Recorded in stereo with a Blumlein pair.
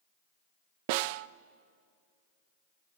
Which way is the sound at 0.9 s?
45° right.